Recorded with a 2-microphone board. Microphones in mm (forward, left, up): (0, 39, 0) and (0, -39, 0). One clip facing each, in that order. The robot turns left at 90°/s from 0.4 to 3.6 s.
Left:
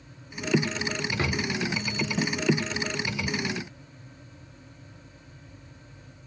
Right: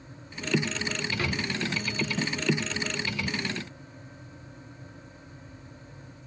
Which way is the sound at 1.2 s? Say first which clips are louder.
Left 3 dB; 25° left (ahead or behind).